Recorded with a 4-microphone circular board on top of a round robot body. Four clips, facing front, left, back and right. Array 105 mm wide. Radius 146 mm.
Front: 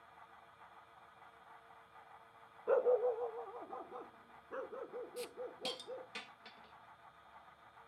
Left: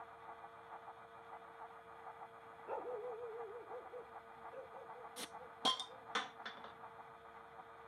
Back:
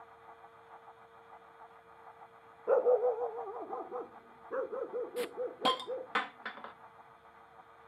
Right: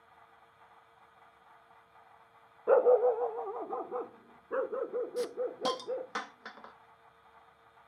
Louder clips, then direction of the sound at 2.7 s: Right 21 dB, back 5 dB; 110° right.